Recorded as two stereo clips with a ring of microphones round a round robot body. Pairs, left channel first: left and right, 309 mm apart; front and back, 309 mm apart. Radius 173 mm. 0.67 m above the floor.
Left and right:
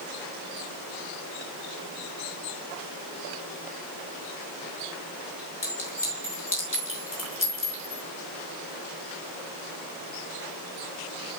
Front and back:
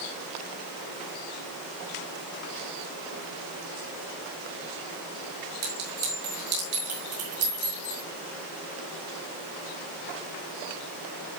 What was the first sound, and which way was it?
A clink, 140° left.